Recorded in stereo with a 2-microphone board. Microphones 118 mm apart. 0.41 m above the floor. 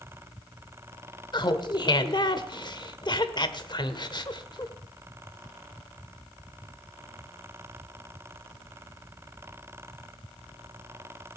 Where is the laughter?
40° left (ahead or behind), 1.3 m.